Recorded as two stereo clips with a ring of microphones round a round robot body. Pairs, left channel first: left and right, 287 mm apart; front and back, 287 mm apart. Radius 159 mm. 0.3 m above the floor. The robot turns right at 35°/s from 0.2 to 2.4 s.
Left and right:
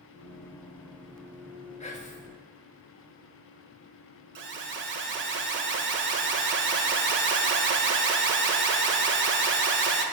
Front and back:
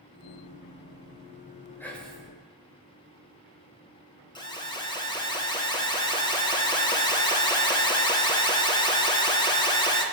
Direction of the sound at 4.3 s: 70° right.